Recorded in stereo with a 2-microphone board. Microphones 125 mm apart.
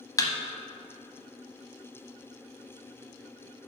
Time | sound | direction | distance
0.2 | a thud | 30° left (ahead or behind) | 0.8 m